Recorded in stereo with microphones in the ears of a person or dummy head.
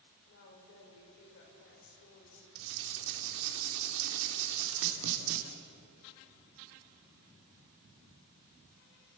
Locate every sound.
0.3 s a woman speaking: 65° left (ahead or behind), 6 m
2.5 s writing: 80° right, 3 m